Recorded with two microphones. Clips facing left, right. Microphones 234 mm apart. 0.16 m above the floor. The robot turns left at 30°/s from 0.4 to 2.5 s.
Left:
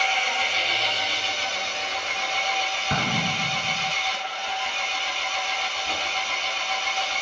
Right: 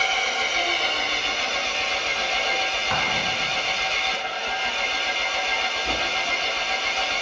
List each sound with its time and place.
0.0 s an engine running: 45° right, 0.9 m; by 7.2 s 105° right, 0.9 m
2.9 s an explosion: 35° left (ahead or behind), 0.7 m